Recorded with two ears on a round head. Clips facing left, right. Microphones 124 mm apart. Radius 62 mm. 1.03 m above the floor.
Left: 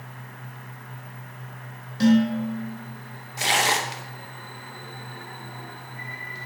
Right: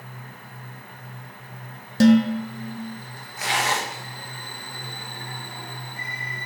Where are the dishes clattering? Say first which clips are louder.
Right 3 dB; 60° right (ahead or behind), 1.1 m.